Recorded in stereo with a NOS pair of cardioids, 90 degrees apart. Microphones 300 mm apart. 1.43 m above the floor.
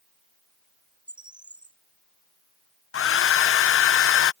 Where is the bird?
15° right.